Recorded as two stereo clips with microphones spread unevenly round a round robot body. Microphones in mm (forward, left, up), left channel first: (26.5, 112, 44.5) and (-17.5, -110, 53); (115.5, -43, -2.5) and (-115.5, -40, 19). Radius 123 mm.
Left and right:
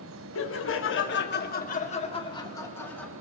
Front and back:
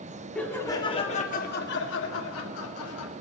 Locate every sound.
0.3 s laughter: 80° left, 2.5 m; by 3.1 s 5° right, 3 m